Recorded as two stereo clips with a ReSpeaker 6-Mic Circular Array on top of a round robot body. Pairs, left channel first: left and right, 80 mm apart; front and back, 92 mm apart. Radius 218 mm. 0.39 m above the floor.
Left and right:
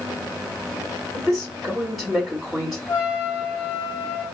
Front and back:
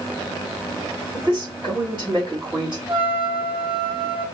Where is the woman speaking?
175° right, 2.0 m.